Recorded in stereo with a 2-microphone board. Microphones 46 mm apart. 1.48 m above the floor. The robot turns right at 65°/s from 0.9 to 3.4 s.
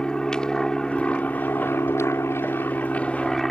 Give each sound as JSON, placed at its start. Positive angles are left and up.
{"t": 0.0, "sound": "an aircraft", "side_deg": 20}